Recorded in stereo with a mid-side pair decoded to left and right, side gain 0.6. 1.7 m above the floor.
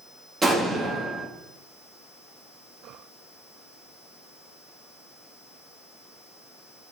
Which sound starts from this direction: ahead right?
An explosion, at 0.4 s.